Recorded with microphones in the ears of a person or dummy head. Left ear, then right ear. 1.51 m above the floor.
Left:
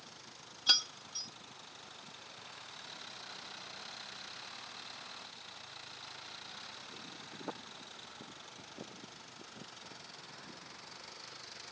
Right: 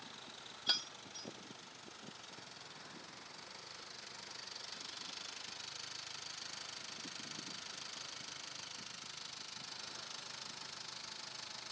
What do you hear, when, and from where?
0.7 s keys jangling: 10° left (ahead or behind), 0.6 m